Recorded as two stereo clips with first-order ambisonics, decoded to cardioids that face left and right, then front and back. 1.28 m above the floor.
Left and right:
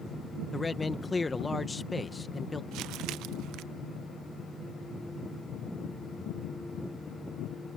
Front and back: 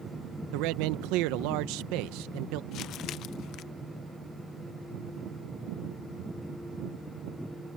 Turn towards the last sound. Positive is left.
turn(degrees=-50)